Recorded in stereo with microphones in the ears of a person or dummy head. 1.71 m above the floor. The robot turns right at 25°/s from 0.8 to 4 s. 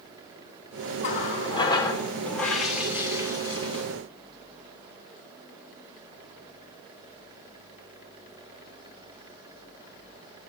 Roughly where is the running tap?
Behind left.